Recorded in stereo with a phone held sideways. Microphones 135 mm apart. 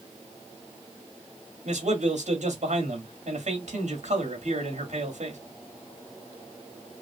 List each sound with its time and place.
1.6 s a man speaking: 65° right (ahead or behind), 2 m